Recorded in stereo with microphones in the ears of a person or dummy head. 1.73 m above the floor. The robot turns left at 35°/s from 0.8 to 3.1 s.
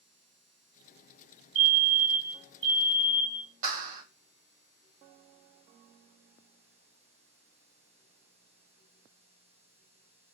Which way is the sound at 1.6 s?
50° right.